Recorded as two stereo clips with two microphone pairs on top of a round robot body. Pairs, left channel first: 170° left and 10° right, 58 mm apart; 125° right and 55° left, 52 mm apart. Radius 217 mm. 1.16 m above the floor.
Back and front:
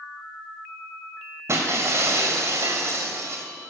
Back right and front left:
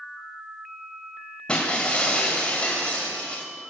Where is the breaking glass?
50° right, 2.5 m.